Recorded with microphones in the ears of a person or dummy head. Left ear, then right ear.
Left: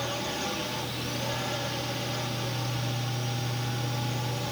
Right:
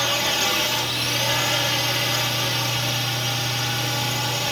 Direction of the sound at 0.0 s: 60° right (ahead or behind).